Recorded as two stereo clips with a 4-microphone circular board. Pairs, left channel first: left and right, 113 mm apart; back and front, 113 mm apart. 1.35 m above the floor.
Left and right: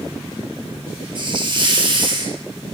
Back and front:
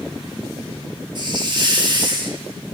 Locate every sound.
1.1 s a hiss: 45° right, 1.0 m